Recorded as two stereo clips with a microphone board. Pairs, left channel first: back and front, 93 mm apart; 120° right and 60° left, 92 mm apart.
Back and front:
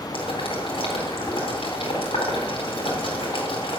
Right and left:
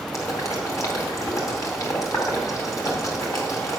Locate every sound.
0.1 s boiling: 175° right, 4 m